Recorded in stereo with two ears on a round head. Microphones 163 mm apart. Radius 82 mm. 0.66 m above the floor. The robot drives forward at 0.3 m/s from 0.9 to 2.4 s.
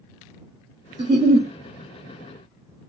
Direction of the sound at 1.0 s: 30° right (ahead or behind).